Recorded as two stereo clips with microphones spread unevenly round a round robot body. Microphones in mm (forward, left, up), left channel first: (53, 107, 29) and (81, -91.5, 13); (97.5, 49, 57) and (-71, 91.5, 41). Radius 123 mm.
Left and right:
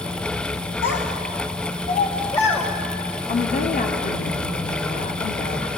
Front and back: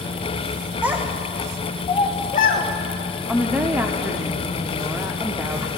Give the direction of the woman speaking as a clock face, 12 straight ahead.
9 o'clock.